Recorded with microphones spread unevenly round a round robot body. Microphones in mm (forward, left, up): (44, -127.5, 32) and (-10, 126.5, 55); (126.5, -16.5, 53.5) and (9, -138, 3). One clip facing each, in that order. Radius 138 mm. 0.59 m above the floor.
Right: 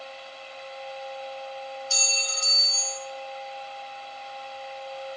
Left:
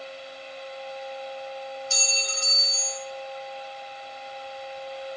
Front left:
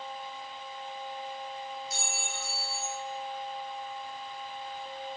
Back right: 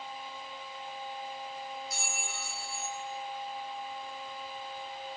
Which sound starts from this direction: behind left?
A clink, at 1.9 s.